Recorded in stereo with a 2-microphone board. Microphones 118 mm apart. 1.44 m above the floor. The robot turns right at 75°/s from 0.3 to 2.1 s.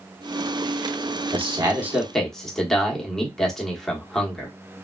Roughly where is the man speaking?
Ahead right.